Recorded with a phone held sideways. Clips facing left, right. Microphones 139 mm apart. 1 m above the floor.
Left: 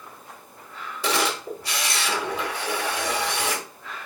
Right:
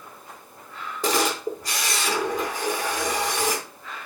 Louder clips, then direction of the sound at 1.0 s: Right 2 dB; 50° right (ahead or behind).